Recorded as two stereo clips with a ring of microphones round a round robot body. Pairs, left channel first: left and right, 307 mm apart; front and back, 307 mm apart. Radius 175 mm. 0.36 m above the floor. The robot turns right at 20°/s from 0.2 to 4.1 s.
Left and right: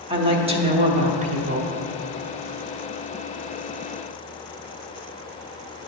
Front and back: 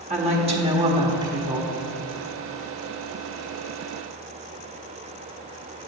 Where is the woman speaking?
140° right, 1.0 m; by 1.7 s 110° right, 1.0 m.